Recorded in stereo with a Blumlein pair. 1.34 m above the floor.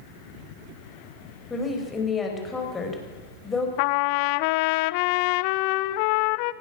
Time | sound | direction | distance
1.5 | a woman speaking | 15° left | 5.5 m
3.8 | a trumpet | 45° left | 0.6 m